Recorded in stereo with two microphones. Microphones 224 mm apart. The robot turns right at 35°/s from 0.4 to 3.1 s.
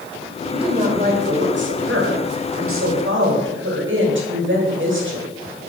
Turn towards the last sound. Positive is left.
turn(degrees=-65)